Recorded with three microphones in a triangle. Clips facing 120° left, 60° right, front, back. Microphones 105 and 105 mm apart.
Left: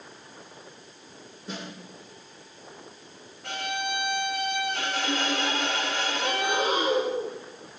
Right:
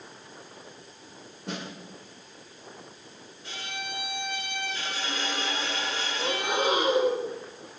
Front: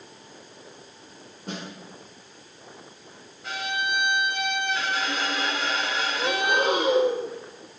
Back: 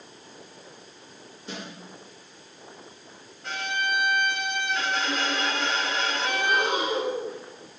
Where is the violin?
90° left, 3 m.